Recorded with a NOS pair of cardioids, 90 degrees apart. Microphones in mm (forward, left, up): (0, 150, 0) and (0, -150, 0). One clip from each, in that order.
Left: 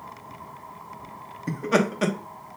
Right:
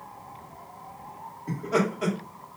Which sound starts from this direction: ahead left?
Laughter, at 1.5 s.